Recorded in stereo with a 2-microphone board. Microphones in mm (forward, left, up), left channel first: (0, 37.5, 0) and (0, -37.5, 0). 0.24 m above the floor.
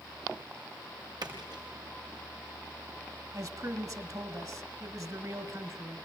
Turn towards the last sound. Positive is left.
turn(degrees=-50)  # may be behind; listen again after turning